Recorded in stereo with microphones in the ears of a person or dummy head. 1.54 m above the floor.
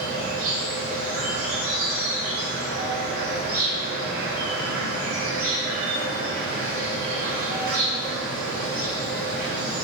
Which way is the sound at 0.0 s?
55° right (ahead or behind).